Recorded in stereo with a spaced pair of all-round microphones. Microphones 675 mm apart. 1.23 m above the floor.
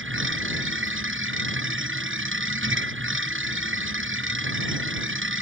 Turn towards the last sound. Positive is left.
turn(degrees=-15)  # may be behind; listen again after turning